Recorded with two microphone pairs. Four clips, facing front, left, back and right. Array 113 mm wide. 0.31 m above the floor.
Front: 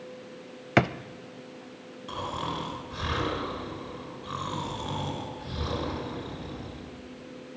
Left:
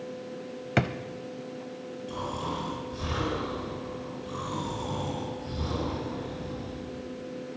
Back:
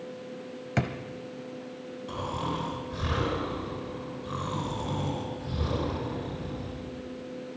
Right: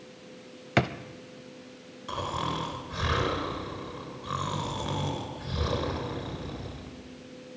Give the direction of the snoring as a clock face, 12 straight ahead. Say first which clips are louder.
Right 2 dB, even; 3 o'clock.